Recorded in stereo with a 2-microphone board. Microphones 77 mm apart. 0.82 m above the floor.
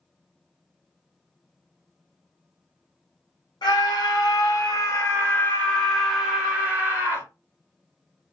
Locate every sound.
3.6 s a scream: 65° left (ahead or behind), 1.2 m; by 7.3 s 30° right (ahead or behind), 1.3 m